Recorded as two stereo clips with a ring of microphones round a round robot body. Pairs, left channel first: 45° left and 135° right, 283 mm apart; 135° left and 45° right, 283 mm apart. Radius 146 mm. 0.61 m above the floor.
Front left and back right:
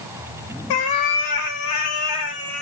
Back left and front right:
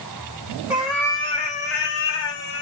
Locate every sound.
0.7 s a cat meowing: 40° left, 0.9 m; by 2.6 s 105° left, 1.1 m